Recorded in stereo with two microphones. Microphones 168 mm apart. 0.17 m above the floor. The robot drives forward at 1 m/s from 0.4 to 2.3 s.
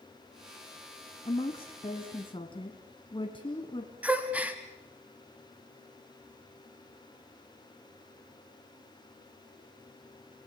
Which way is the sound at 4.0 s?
10° right (ahead or behind).